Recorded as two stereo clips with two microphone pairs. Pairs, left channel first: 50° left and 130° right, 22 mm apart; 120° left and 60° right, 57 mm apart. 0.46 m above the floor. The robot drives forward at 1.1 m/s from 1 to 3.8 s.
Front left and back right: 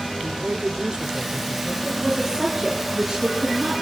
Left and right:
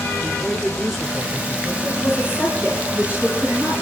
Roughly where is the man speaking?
Behind right.